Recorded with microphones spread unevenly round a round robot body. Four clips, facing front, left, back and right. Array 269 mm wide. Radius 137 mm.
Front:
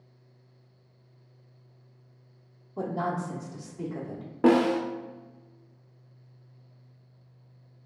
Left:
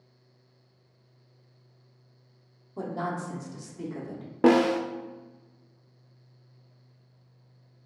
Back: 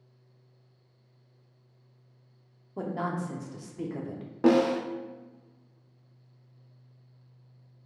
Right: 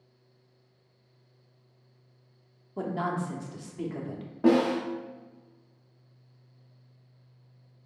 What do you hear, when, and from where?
2.8 s a woman speaking: 125° right, 0.7 m
4.4 s a snare drum: 75° left, 0.6 m